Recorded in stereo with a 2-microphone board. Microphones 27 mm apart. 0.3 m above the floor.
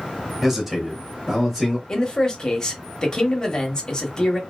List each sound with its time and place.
0.4 s a man speaking: 5° right (ahead or behind), 1.1 m
1.9 s a man speaking: 25° left (ahead or behind), 1.0 m